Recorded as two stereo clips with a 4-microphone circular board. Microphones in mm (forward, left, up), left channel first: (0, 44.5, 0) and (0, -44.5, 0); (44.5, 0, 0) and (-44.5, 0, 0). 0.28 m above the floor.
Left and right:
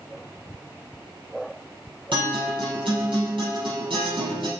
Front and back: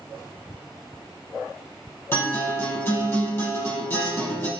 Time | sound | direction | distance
2.1 | a guitar | 65° right | 6 m